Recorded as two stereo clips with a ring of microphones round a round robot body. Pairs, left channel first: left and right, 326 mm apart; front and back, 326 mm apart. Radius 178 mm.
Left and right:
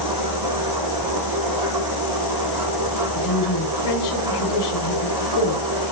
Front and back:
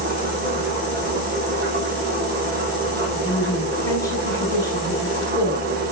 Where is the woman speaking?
80° left, 5.5 m.